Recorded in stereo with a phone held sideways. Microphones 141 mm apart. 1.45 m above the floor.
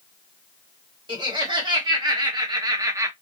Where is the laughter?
35° right (ahead or behind), 1.7 m; by 3.1 s 20° right (ahead or behind), 0.6 m.